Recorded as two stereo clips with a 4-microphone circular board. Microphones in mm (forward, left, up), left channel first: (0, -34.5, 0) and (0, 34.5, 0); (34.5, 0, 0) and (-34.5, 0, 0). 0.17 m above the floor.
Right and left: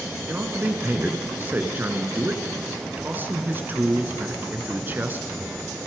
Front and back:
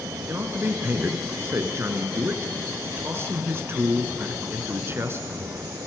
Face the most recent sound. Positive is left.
turn(degrees=140)